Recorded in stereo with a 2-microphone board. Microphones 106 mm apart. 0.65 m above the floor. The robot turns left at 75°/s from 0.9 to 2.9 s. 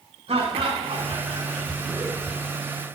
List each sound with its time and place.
0.3 s laughter: 95° right, 2 m; by 2.4 s 155° left, 2 m